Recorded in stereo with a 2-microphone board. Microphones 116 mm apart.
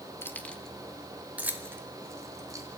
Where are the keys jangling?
20° left (ahead or behind), 1.4 m; by 2.7 s 30° right (ahead or behind), 3 m.